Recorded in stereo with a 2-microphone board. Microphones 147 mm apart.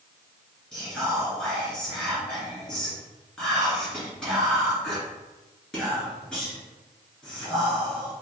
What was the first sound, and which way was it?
Whispering, 5° left (ahead or behind).